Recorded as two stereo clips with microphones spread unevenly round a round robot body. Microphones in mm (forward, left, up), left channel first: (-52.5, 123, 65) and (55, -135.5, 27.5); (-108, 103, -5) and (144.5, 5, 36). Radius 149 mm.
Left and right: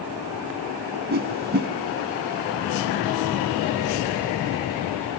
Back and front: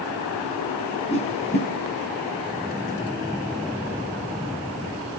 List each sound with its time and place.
1.1 s a whoosh: 130° right, 1.6 m